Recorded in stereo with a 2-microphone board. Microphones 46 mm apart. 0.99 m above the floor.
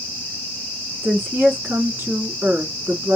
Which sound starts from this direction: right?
A woman speaking, at 1.0 s.